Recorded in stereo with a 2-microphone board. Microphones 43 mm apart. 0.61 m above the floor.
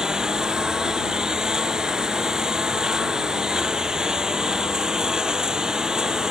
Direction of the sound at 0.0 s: 15° right (ahead or behind).